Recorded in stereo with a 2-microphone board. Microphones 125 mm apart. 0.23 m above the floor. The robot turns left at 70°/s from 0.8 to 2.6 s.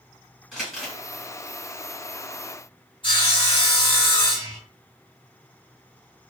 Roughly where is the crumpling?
Centre.